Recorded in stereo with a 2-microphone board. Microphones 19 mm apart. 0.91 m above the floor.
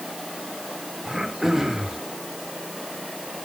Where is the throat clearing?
20° right (ahead or behind), 3.5 m.